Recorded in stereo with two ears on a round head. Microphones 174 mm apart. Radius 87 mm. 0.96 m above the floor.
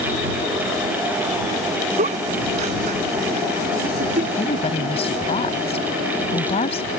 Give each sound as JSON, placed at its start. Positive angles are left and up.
{"t": 2.0, "sound": "a giggle", "side_deg": -40}
{"t": 4.4, "sound": "a woman speaking", "side_deg": 30}